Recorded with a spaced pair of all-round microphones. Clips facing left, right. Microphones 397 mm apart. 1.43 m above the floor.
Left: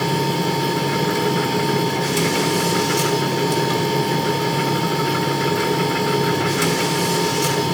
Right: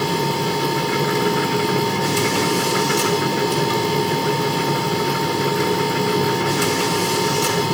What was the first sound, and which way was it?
A machine running, 10° right (ahead or behind).